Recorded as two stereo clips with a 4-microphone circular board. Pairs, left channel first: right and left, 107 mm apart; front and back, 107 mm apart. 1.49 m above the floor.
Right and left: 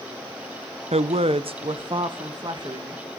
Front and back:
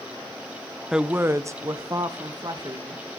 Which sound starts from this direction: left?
A woman speaking, at 0.9 s.